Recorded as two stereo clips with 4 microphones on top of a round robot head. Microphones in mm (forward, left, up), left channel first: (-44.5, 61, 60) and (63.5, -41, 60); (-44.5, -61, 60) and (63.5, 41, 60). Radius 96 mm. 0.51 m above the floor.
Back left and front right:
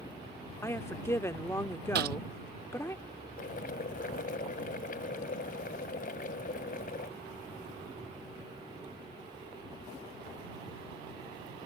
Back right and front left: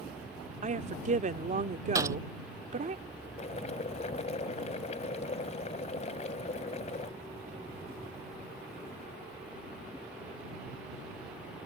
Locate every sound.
0.6 s a woman speaking: 65° left
1.9 s a gunshot: 25° right
3.4 s boiling: 175° left